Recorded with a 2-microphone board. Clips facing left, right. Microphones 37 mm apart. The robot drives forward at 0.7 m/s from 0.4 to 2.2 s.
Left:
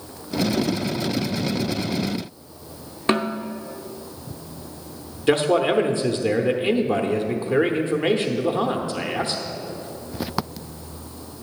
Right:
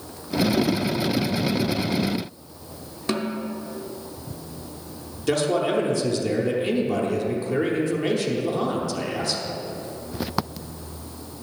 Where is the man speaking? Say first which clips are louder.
Left 3 dB; 30° left (ahead or behind), 0.9 m.